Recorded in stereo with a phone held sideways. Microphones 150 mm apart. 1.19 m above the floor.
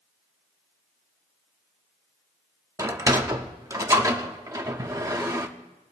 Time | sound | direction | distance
2.8 | a sliding door | 25° right (ahead or behind) | 1.1 m